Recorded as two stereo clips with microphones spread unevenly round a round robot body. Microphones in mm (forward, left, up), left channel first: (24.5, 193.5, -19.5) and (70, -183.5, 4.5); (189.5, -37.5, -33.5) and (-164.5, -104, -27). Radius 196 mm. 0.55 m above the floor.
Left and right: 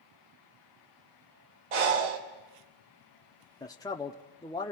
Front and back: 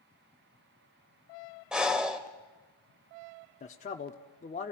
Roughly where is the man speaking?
Ahead left.